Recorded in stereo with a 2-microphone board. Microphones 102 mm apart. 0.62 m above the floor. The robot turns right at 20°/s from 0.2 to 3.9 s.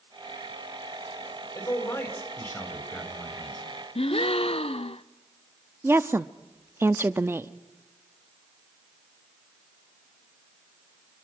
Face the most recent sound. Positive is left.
turn(degrees=-25)  # may be behind; listen again after turning